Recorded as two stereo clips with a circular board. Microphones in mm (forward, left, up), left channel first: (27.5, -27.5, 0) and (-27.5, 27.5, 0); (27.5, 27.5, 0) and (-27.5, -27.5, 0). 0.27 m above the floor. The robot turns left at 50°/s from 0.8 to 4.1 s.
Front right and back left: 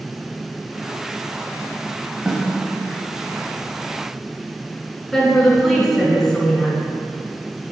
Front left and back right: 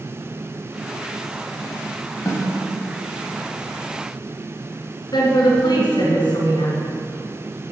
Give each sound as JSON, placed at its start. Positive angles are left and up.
{"t": 2.2, "sound": "a snare drum", "azimuth_deg": 60, "distance_m": 1.2}
{"t": 5.1, "sound": "a woman speaking", "azimuth_deg": 40, "distance_m": 3.0}